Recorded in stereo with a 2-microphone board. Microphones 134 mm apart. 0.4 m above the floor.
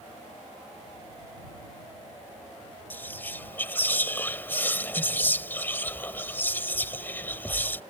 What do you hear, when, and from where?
2.9 s whispering: 15° left (ahead or behind)